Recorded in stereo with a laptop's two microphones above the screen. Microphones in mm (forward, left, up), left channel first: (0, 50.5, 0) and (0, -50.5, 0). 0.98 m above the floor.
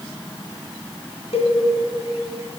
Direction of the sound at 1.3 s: 80° left.